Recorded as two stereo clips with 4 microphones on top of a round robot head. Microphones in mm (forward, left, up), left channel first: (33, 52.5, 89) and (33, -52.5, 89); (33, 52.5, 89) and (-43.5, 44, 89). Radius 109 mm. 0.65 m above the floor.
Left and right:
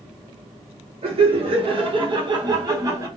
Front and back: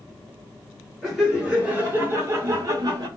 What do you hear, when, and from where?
1.0 s laughter: 85° right, 1.1 m; by 3.1 s 150° right, 1.2 m